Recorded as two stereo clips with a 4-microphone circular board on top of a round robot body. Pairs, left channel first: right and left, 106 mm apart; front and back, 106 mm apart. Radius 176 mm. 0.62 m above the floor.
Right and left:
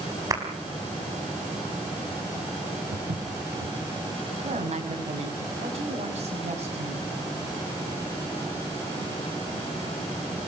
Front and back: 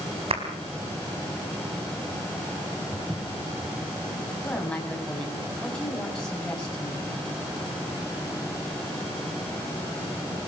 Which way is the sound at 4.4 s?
85° left.